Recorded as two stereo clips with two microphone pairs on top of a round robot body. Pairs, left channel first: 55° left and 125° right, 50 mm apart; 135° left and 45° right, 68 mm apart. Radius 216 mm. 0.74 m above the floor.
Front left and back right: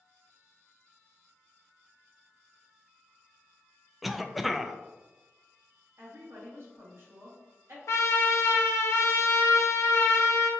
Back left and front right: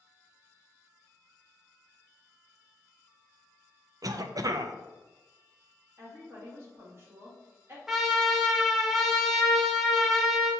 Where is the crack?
No crack in this recording.